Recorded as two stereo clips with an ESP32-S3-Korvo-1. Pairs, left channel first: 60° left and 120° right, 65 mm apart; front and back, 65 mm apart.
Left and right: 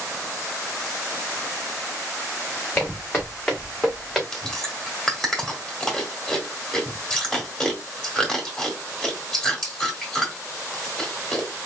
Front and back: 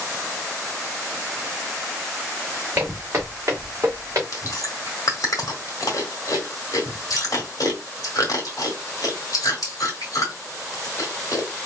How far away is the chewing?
About 1.6 m.